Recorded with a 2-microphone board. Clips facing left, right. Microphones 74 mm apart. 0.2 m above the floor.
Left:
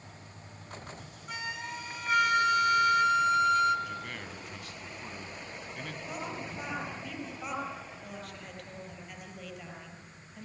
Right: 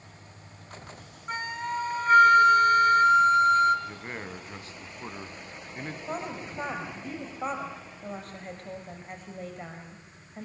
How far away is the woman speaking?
About 4.5 m.